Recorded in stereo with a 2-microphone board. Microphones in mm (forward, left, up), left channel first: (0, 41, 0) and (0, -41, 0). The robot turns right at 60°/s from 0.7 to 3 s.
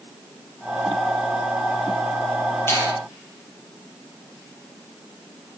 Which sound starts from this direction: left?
A finger snap, at 2.7 s.